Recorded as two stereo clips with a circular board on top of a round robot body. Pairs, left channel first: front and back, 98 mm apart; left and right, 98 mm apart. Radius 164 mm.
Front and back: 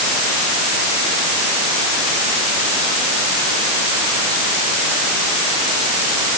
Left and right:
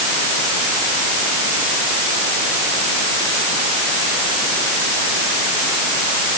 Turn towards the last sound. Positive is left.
No sound to turn to.